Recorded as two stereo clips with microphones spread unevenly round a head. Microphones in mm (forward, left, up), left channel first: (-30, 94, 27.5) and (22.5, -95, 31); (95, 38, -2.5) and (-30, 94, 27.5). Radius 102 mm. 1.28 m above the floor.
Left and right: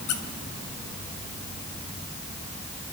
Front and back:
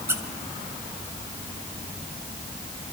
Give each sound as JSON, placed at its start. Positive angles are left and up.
{"t": 0.1, "sound": "a squeak", "azimuth_deg": 90, "distance_m": 2.5}